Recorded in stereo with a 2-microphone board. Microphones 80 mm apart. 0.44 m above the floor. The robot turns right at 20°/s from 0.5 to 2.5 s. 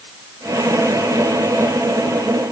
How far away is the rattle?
No rattle in this recording.